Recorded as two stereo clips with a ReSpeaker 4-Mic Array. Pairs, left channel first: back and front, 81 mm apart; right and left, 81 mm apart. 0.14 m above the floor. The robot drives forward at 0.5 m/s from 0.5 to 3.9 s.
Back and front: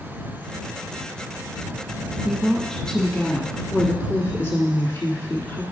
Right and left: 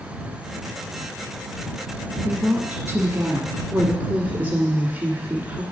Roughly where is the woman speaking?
Left.